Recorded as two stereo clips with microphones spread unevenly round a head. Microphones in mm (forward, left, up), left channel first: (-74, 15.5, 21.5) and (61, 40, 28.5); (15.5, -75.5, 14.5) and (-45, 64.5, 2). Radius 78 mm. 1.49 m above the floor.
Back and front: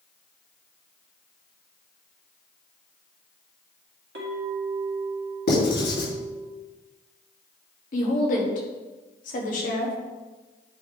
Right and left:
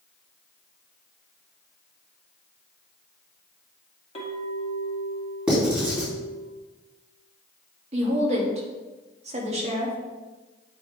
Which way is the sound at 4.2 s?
10° right.